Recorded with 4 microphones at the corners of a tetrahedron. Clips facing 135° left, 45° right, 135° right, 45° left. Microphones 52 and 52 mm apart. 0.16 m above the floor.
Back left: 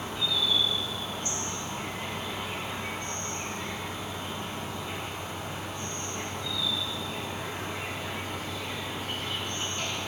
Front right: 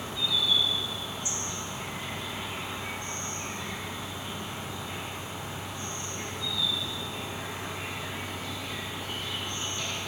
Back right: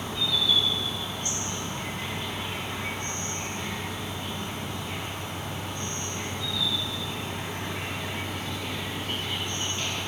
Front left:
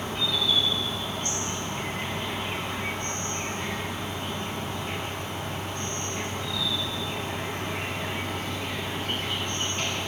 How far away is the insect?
About 3 m.